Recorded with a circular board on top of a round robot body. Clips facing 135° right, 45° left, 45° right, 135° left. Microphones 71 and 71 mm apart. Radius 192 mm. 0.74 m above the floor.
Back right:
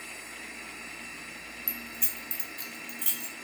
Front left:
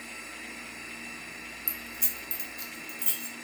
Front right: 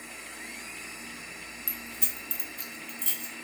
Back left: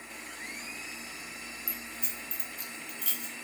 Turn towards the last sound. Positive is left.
turn(degrees=-115)